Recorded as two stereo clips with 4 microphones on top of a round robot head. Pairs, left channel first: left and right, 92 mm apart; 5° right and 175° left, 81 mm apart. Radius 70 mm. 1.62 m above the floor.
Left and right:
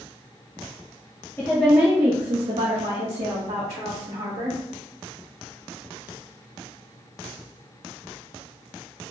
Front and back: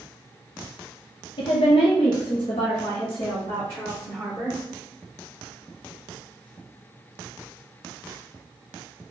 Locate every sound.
1.4 s a woman speaking: 20° left, 0.5 m; by 4.6 s 75° right, 2 m